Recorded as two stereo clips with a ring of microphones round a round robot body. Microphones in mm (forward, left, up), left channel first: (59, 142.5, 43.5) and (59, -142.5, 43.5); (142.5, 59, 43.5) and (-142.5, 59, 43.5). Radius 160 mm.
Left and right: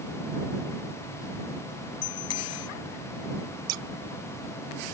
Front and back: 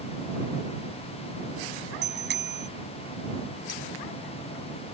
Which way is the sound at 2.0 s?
130° left.